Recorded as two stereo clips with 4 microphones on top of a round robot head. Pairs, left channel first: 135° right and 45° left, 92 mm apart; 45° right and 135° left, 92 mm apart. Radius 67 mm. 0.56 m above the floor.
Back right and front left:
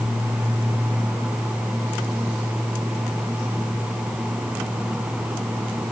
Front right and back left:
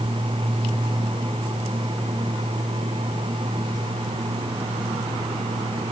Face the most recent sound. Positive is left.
No sound to turn to.